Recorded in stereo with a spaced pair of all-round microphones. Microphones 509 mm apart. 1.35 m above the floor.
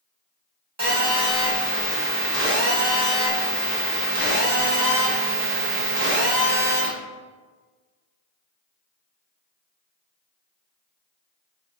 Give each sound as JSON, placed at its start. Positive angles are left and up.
{"t": 0.8, "sound": "a phone buzzing", "side_deg": -30, "distance_m": 1.6}